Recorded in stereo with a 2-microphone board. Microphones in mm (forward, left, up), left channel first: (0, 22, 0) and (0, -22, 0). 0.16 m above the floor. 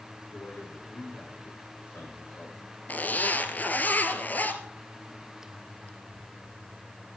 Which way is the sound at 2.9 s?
45° left (ahead or behind).